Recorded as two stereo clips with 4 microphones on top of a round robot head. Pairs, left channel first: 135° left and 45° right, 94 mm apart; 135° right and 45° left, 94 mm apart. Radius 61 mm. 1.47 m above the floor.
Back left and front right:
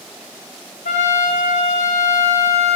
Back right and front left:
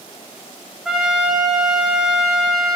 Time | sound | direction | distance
0.8 | a trumpet | 130° left | 4 m